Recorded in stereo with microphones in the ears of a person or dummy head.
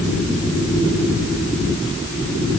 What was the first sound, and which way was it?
Only background noise.